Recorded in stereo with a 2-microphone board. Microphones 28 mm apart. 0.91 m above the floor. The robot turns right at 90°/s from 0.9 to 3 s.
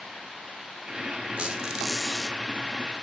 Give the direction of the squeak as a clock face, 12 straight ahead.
2 o'clock.